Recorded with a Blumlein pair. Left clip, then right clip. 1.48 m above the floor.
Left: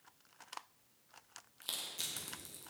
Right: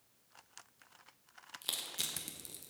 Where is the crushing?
15° right, 1.1 m.